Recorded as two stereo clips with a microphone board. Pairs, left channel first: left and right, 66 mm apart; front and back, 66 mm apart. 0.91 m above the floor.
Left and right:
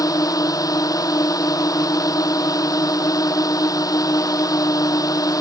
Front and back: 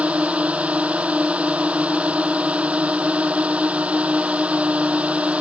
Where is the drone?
110° left.